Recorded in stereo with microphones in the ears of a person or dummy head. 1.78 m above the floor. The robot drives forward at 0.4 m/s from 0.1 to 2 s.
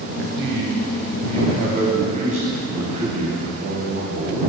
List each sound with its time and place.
0.2 s a man speaking: 50° right (ahead or behind), 0.8 m; by 4.4 s 35° right (ahead or behind), 1.1 m